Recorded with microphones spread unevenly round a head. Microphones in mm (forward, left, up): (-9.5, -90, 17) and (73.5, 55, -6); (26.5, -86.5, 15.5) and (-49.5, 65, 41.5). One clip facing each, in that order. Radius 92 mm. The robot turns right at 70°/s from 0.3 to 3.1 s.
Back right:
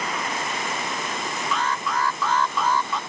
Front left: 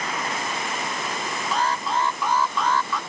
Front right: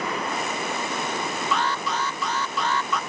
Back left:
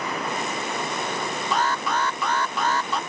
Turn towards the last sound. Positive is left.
turn(degrees=180)